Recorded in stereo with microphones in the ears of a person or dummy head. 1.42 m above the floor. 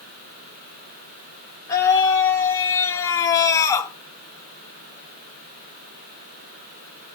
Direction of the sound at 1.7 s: 20° left (ahead or behind).